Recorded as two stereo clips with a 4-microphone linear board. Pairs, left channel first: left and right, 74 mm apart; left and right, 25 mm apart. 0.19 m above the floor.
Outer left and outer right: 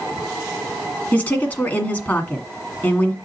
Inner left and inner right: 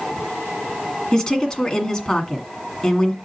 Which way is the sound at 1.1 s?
20° left (ahead or behind).